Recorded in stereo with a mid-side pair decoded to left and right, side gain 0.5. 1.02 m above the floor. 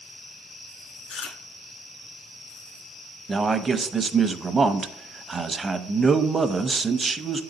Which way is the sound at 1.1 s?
70° left.